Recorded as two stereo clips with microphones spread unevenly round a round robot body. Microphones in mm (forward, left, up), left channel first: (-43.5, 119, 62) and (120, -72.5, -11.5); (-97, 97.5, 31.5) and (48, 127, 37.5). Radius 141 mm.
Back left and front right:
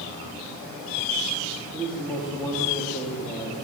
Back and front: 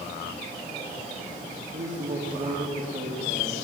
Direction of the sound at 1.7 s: 50° left.